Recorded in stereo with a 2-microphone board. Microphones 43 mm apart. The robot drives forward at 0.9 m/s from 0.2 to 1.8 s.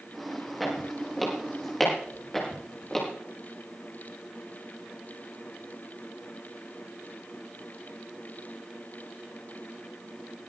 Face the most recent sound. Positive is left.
turn(degrees=10)  # may be behind; listen again after turning